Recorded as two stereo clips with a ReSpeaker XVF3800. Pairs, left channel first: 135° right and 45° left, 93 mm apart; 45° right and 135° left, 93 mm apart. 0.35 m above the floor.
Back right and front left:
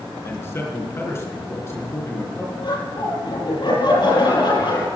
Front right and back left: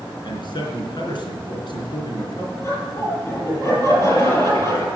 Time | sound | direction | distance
0.2 | a man speaking | 75° right | 4 m
2.6 | laughter | 105° right | 8 m